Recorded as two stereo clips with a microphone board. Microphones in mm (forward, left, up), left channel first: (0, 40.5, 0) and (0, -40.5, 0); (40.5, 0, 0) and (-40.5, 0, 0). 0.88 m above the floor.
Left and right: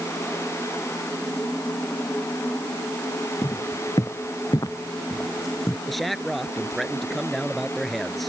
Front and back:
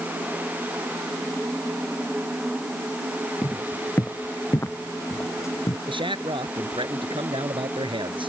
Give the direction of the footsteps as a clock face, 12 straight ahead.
10 o'clock.